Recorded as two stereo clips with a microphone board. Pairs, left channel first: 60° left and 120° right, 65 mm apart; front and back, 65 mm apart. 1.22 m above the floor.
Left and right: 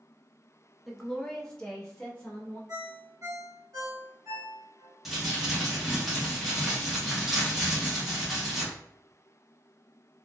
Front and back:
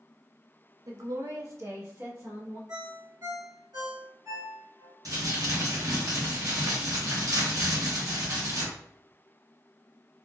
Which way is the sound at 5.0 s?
150° left.